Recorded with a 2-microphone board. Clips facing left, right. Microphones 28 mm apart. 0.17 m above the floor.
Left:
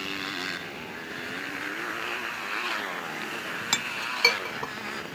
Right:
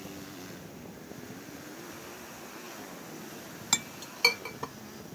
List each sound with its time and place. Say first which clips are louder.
0.0 s a motorcycle: left 12 dB; 70° left (ahead or behind); by 5.2 s 80° left
3.7 s a clink: left 4 dB; 15° left (ahead or behind)